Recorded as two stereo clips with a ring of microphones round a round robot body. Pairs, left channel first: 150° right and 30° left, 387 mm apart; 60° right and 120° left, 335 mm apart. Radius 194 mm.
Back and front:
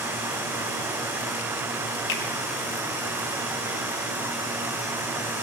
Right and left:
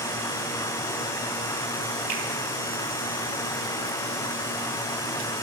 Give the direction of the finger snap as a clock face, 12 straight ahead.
6 o'clock.